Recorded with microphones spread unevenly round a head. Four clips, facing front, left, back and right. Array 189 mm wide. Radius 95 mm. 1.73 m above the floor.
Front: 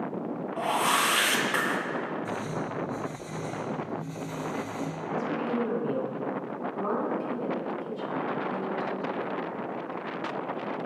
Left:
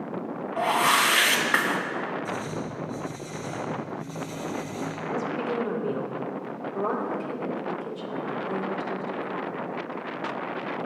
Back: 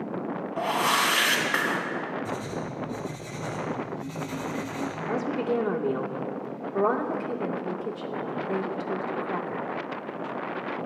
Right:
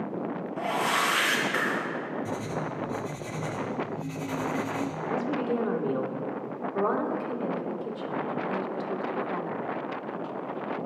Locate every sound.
0.6 s a whoosh: 95° left, 3 m
2.2 s writing: 130° right, 3 m
5.1 s a woman speaking: 175° right, 2.5 m